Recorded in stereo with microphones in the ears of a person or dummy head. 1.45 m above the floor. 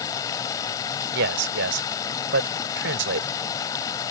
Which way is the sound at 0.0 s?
15° left (ahead or behind).